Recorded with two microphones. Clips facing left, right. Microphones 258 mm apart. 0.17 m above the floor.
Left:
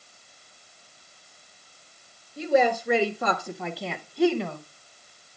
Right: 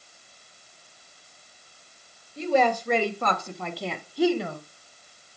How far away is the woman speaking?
About 2 m.